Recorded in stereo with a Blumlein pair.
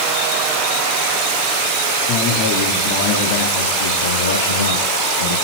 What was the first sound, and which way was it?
A man speaking, 35° left.